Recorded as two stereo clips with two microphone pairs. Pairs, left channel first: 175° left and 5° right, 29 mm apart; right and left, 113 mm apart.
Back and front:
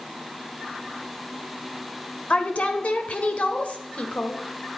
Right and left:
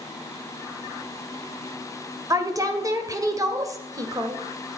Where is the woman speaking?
145° left, 1.9 m.